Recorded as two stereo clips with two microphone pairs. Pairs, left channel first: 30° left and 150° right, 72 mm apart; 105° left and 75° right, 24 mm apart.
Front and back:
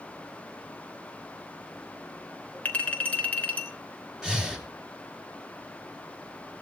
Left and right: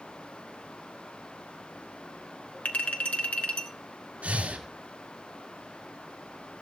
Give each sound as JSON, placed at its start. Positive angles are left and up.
{"t": 2.6, "sound": "a clink", "azimuth_deg": 100, "distance_m": 3.0}
{"t": 4.2, "sound": "breathing", "azimuth_deg": -70, "distance_m": 3.0}